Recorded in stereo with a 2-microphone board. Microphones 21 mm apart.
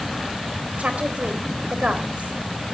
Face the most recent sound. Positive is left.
turn(degrees=-80)